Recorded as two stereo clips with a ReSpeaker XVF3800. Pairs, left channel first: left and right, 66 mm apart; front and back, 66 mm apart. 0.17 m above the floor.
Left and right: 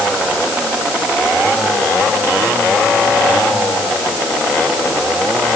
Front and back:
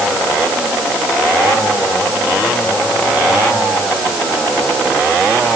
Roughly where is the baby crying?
No baby crying in this recording.